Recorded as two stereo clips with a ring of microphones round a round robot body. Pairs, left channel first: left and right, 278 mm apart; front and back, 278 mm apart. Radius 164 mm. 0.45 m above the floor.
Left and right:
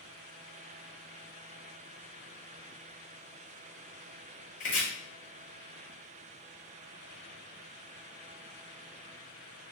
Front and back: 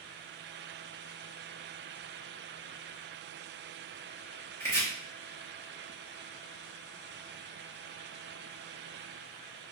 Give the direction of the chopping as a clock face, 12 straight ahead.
10 o'clock.